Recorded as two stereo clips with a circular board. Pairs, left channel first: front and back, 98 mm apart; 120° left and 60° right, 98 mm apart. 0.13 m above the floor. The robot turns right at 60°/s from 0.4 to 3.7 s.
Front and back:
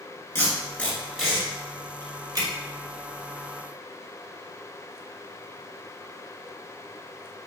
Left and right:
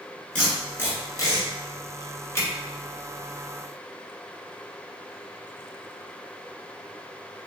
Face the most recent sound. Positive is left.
turn(degrees=-115)